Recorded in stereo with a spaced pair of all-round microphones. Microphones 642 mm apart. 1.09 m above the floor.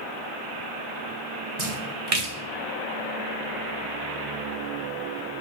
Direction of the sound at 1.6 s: 60° right (ahead or behind).